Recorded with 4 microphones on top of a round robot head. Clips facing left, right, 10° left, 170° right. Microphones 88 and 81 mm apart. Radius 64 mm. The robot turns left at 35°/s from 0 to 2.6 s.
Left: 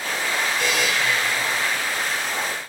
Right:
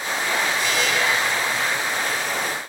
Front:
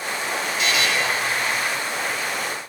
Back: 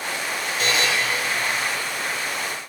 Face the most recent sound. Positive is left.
turn(degrees=70)